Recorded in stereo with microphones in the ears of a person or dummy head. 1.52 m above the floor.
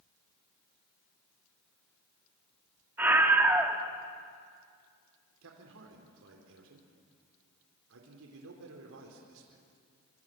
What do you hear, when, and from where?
3.0 s a scream: 10° right (ahead or behind), 2.5 m
5.4 s a man speaking: 75° right (ahead or behind), 3.5 m